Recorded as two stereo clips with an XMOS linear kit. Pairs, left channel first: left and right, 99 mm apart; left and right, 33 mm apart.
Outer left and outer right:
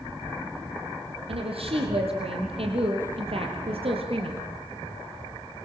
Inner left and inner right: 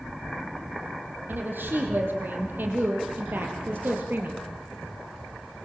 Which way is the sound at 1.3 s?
75° right (ahead or behind).